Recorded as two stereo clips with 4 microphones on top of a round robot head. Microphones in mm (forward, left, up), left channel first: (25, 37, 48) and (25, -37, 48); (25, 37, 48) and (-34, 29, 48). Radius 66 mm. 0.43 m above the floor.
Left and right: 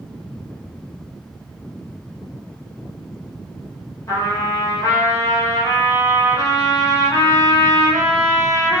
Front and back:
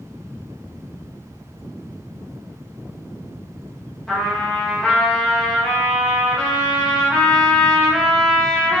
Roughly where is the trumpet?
Left.